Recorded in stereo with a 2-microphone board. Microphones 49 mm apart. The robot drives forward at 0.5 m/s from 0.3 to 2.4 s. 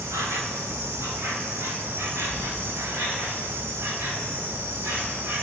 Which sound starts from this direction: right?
An insect, at 0.0 s.